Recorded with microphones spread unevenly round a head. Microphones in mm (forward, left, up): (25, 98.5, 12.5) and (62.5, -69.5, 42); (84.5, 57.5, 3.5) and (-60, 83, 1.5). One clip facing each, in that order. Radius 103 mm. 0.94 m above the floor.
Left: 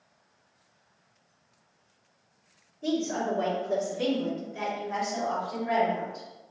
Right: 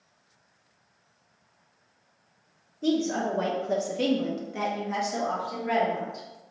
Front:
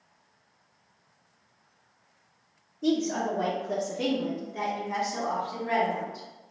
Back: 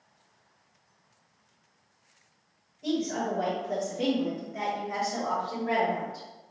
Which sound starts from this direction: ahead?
A woman speaking, at 2.8 s.